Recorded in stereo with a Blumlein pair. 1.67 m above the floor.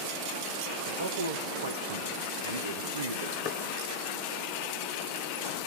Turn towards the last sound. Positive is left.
turn(degrees=40)